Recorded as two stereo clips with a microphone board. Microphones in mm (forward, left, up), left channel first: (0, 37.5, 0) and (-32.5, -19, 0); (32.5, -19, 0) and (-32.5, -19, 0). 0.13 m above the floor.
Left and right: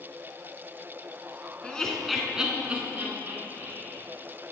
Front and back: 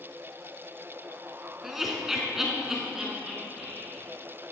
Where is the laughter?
100° left, 1.3 m; by 4.0 s 100° right, 2 m.